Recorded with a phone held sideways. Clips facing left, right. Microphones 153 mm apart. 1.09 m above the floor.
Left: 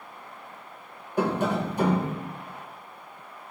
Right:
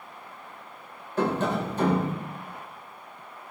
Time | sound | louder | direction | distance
1.2 | tapping | left 1 dB | 15° left (ahead or behind) | 3 m